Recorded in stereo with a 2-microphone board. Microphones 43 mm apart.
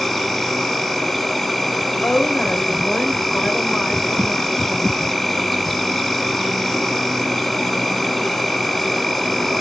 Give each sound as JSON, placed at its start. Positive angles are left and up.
{"t": 0.0, "sound": "an insect", "side_deg": 5, "distance_m": 1.4}
{"t": 2.0, "sound": "a woman speaking", "side_deg": 40, "distance_m": 2.5}